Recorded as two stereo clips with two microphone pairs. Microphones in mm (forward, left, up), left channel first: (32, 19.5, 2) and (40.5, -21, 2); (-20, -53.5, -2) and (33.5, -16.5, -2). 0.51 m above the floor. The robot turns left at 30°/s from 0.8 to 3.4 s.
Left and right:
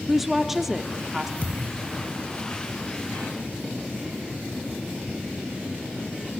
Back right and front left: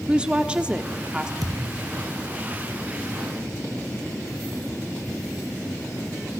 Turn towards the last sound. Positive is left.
turn(degrees=-5)